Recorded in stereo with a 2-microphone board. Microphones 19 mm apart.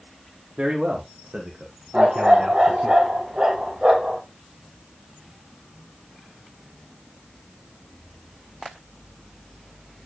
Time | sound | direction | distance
0.6 | a man speaking | 70° right (ahead or behind) | 3.5 m
1.9 | a dog barking | 55° right (ahead or behind) | 1.8 m